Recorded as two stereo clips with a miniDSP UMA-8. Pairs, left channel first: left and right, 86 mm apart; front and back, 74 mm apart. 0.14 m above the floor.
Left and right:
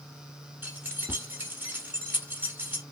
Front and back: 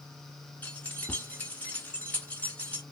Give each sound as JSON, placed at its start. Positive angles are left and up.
{"t": 0.6, "sound": "keys jangling", "azimuth_deg": -45, "distance_m": 1.1}